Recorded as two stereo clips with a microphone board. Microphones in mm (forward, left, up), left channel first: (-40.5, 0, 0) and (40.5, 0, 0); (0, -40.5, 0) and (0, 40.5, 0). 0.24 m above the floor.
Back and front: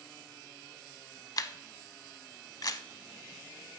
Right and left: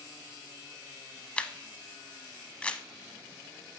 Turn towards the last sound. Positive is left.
turn(degrees=-160)